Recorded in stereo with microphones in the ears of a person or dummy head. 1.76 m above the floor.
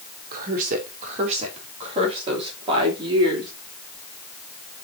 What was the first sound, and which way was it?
A woman speaking, 50° right (ahead or behind).